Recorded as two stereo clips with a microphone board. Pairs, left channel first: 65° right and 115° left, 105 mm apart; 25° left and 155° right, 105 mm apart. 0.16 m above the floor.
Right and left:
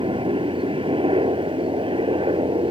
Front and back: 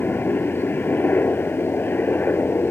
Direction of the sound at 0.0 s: 90° left.